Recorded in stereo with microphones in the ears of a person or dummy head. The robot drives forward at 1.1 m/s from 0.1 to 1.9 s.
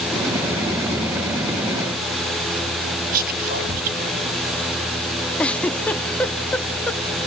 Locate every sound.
3.1 s whispering: 45° right (ahead or behind), 1.7 m
5.4 s a giggle: 5° left (ahead or behind), 1.6 m